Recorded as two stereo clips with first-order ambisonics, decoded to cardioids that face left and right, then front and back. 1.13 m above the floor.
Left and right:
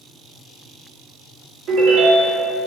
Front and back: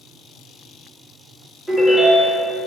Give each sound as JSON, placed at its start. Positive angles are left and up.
{"t": 1.7, "sound": "a ringtone", "azimuth_deg": -90, "distance_m": 1.3}